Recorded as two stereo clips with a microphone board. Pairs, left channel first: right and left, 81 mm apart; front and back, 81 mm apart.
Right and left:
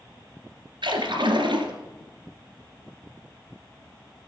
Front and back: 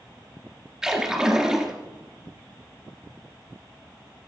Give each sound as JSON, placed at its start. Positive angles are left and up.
{"t": 0.8, "sound": "a splash", "azimuth_deg": 100, "distance_m": 2.5}